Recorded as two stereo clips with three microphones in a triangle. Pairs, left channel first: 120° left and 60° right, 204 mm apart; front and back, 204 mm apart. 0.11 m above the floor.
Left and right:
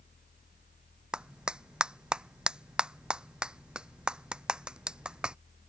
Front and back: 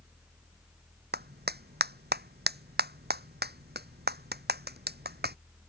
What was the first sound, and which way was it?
A clap, 145° right.